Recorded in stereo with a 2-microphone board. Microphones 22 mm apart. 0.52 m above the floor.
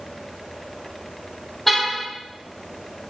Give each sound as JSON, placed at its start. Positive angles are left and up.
{"t": 1.7, "sound": "a car horn", "side_deg": 10, "distance_m": 9.5}